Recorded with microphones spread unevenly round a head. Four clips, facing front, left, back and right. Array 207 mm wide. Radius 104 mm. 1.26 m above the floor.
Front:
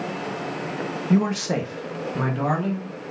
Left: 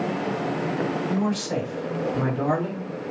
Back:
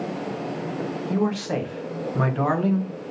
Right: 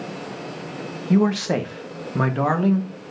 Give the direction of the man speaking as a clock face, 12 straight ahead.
2 o'clock.